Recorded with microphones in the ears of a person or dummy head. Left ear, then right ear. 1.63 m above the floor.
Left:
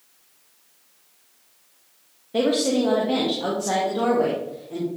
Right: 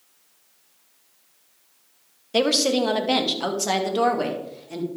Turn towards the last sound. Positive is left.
turn(degrees=-75)  # may be behind; listen again after turning